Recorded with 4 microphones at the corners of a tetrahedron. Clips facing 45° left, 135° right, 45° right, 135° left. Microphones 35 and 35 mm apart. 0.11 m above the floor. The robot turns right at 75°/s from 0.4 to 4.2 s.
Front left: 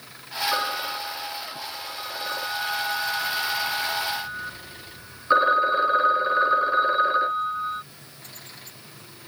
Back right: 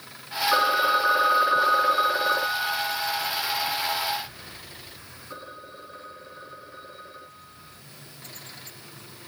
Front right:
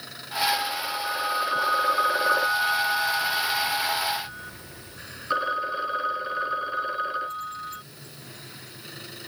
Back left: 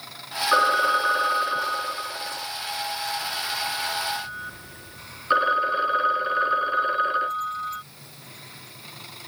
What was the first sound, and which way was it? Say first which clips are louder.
A phone ringing: back right 9 dB, back left 9 dB; 145° left.